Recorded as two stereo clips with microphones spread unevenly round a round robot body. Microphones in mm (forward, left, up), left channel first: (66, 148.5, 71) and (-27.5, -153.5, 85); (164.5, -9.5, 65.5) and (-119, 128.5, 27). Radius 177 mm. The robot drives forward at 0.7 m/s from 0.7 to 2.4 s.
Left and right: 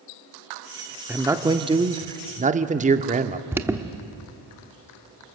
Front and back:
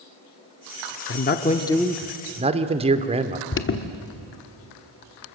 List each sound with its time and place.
1.1 s a man speaking: 25° right, 0.9 m; by 3.4 s 160° right, 1.0 m
3.5 s an alarm: 25° right, 1.2 m